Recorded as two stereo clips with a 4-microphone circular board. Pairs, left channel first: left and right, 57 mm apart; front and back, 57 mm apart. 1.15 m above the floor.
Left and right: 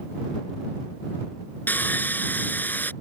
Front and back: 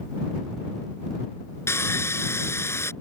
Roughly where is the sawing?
Ahead left.